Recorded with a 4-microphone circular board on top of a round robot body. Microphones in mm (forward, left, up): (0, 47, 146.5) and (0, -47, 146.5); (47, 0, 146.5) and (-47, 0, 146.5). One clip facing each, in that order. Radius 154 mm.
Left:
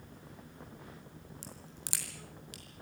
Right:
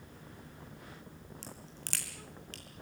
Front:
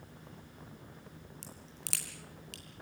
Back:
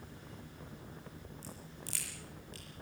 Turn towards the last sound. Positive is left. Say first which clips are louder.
# right 1 dB, back 2 dB
turn(degrees=10)